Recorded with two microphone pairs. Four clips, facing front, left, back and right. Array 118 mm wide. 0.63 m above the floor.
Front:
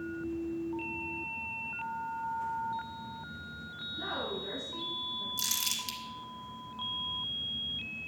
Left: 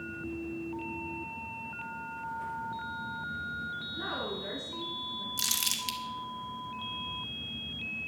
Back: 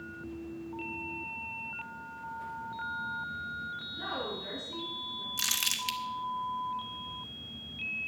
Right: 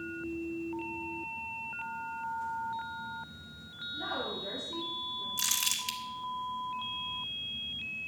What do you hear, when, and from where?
3.9 s a woman speaking: 90° left, 7 m; by 5.3 s 95° left, 7.5 m
5.4 s crumpling: straight behind, 1.6 m